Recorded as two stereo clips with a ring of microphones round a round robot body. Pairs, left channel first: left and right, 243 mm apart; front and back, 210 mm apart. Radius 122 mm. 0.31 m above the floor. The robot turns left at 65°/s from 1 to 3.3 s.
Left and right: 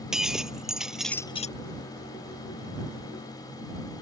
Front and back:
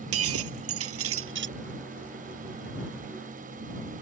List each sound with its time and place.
0.1 s breaking glass: straight behind; by 1.6 s 145° left